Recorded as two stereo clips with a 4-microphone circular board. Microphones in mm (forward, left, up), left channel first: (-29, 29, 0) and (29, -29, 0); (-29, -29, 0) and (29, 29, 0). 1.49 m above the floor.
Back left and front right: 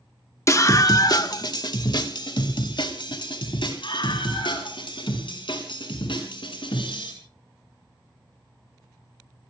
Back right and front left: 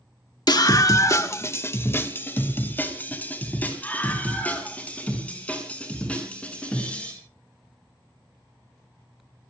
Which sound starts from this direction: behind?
A scream, at 0.5 s.